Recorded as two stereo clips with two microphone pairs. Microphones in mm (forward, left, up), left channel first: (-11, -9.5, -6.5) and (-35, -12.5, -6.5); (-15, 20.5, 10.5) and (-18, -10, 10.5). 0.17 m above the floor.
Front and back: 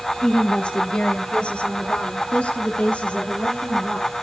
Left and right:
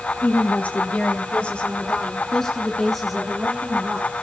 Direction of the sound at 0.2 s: 60° left.